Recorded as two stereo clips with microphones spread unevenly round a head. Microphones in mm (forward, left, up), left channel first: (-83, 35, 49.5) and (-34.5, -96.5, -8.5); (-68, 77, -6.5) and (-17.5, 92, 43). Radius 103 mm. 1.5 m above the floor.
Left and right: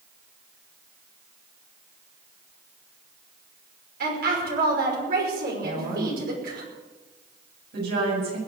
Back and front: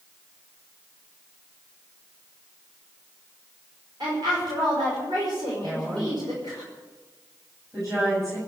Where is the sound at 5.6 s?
55° right, 7.5 m.